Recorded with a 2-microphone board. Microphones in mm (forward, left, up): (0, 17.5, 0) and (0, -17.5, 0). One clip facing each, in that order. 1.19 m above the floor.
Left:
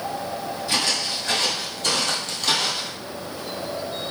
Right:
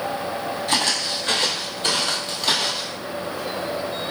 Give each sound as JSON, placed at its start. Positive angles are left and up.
{"t": 0.7, "sound": "footsteps", "side_deg": -50, "distance_m": 1.8}